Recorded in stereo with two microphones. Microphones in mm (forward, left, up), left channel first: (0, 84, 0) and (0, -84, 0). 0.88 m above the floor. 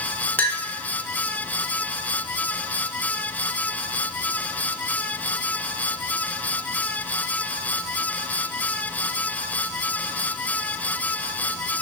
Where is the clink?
10° left (ahead or behind), 0.9 m.